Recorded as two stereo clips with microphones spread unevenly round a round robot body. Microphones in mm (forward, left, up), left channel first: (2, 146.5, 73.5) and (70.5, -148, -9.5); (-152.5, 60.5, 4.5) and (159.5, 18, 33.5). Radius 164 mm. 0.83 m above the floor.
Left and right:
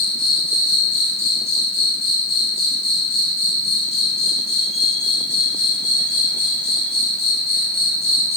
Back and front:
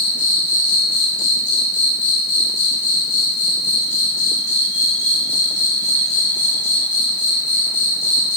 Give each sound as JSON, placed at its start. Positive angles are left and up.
{"t": 0.0, "sound": "an insect", "azimuth_deg": 165, "distance_m": 1.4}